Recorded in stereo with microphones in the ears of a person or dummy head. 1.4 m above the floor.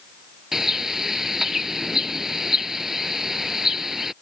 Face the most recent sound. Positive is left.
turn(degrees=0)  # may be behind; listen again after turning